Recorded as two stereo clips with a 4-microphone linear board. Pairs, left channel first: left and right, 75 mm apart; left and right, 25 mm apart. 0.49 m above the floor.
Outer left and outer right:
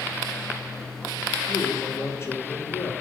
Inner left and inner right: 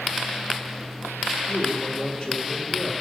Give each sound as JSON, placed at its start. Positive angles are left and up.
{"t": 1.5, "sound": "a man speaking", "side_deg": 35, "distance_m": 1.5}